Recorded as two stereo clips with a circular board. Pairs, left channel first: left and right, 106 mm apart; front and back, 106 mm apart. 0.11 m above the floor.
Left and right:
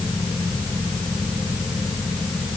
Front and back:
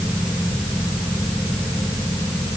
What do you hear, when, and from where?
Only background noise.